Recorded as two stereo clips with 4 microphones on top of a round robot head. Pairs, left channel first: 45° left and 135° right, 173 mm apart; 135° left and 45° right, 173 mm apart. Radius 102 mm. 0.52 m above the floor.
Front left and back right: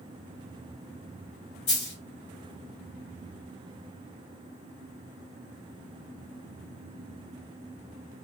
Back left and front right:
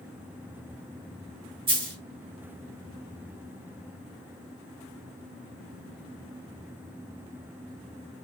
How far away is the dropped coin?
About 1.8 m.